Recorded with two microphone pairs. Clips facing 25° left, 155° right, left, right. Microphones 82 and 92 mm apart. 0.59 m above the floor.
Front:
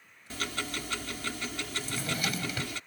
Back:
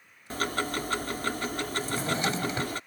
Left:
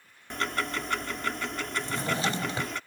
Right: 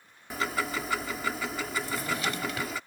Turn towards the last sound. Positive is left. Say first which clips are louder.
# back 5 dB, left 4 dB
turn(degrees=145)